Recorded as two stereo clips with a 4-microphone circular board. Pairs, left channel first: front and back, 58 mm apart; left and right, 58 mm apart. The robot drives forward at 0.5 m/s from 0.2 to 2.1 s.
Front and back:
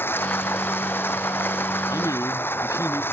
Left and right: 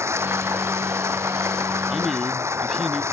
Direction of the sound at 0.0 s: 50° right.